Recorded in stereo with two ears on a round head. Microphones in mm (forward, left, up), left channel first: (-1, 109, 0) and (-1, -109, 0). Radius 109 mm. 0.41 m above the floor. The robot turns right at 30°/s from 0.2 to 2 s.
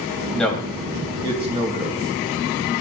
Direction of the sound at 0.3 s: 5° left (ahead or behind).